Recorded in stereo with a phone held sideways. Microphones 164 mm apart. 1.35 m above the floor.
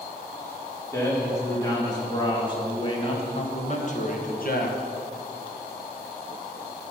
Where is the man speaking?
15° left (ahead or behind), 3 m; by 4.8 s 75° left (ahead or behind), 1.1 m.